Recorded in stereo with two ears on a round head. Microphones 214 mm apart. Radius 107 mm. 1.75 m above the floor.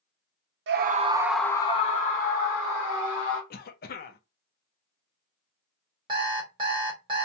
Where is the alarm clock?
20° right (ahead or behind), 1.2 m.